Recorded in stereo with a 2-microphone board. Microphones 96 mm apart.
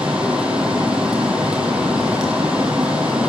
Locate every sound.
0.0 s running water: 10° right (ahead or behind), 1.8 m